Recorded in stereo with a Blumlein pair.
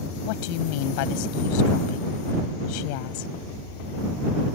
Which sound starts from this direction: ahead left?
A woman speaking, at 0.3 s.